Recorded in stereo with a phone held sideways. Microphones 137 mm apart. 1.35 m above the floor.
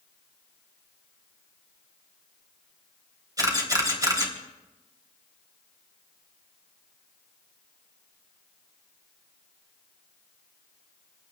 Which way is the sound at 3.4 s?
30° right (ahead or behind).